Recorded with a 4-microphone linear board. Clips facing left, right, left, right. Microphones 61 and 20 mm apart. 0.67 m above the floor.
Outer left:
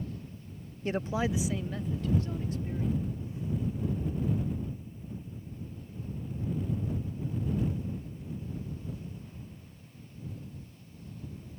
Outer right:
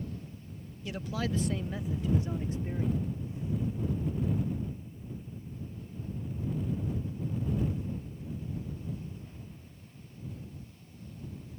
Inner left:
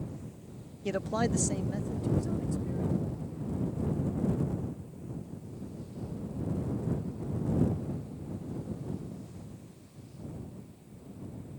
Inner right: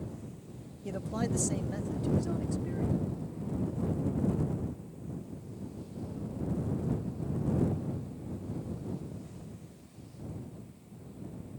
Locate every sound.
0.8 s a man speaking: 40° left (ahead or behind); by 3.0 s 30° right (ahead or behind)